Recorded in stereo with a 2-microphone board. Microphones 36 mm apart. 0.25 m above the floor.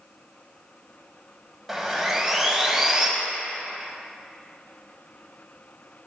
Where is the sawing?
10° right (ahead or behind), 0.6 m.